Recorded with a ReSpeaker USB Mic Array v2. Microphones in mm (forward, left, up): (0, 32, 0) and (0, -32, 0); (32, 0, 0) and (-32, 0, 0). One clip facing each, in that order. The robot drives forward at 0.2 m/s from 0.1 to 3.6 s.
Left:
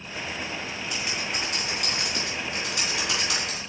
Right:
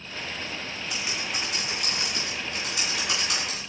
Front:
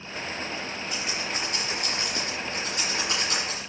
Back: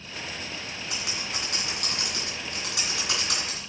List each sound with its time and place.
0.9 s typing on a keyboard: 175° left, 3.5 m